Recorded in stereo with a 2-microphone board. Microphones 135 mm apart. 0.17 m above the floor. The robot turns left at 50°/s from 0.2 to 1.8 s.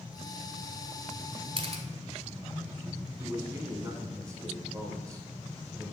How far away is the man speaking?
About 1.2 m.